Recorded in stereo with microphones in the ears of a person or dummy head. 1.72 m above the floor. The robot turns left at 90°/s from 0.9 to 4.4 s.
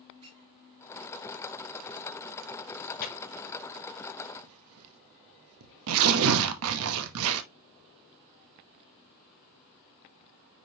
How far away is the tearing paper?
About 0.9 m.